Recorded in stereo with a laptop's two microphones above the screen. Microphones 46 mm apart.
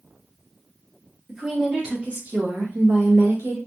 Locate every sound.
1.3 s a woman speaking: centre (ahead or behind), 1.2 m; by 3.6 s 70° right (ahead or behind), 1.6 m